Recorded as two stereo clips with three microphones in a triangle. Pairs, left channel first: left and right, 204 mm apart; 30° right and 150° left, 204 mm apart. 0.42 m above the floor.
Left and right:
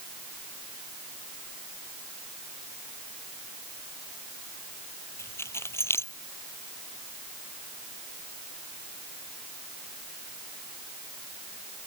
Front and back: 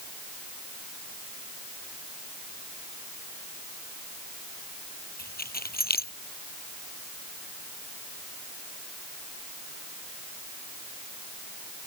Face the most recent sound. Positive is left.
turn(degrees=10)